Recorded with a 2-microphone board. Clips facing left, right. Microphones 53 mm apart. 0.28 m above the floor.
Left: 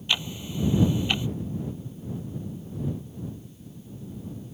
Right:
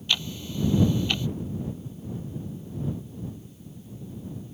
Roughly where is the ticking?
Centre.